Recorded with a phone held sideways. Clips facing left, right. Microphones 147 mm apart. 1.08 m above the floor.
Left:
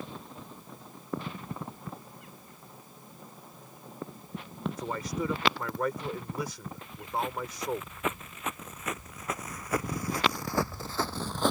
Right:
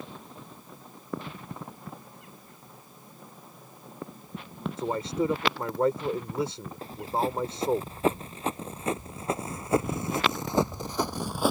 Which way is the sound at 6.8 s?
35° right (ahead or behind).